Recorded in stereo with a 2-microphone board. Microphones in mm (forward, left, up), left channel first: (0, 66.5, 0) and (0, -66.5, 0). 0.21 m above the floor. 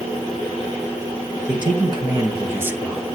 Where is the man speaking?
40° right (ahead or behind), 3 m; by 3.0 s centre (ahead or behind), 1.4 m.